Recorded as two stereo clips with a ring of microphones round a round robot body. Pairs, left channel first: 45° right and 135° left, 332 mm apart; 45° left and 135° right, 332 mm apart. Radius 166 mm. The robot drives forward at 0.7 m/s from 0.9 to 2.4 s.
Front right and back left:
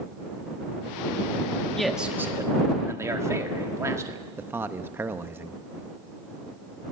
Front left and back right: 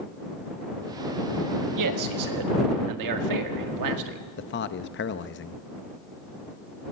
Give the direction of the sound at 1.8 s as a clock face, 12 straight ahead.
4 o'clock.